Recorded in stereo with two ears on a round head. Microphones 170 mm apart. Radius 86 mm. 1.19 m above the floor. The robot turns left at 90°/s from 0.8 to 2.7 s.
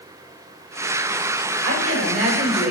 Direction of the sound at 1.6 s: 85° right.